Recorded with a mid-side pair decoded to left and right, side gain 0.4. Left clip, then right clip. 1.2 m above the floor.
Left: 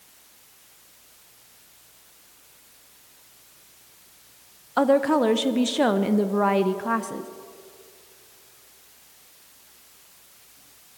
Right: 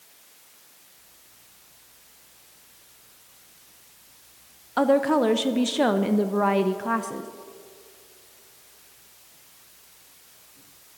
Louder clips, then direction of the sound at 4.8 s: Left 1 dB; 5° left.